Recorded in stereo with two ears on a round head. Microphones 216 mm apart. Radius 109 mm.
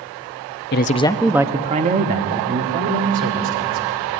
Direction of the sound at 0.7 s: 45° left (ahead or behind).